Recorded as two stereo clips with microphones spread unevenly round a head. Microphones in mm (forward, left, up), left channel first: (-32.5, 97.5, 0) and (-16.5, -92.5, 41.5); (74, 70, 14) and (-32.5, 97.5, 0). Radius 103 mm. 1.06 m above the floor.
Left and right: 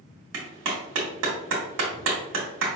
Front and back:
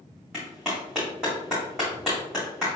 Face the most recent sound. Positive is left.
turn(degrees=-105)